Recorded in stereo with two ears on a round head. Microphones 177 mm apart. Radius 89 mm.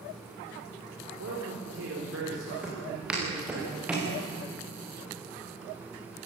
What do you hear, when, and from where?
1.2 s a man speaking: 70° right (ahead or behind), 4 m
2.6 s footsteps: 5° right (ahead or behind), 8 m